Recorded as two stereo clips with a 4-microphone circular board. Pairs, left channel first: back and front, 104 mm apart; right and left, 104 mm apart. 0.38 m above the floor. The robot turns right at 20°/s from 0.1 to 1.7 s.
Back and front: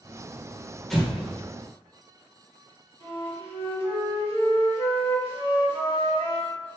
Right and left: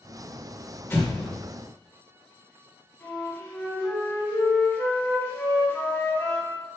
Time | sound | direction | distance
0.9 | an explosion | 95° right | 1.2 m
3.0 | a flute | 25° right | 1.8 m